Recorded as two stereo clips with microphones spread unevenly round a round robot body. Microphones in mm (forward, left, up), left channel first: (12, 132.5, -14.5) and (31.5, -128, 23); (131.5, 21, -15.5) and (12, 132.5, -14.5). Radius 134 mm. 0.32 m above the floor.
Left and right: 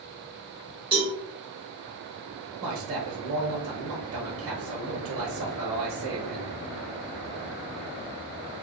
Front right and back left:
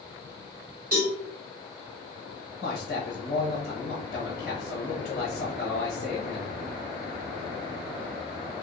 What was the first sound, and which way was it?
A cowbell, 155° right.